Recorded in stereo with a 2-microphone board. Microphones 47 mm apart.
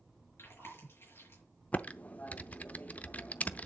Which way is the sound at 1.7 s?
35° left (ahead or behind).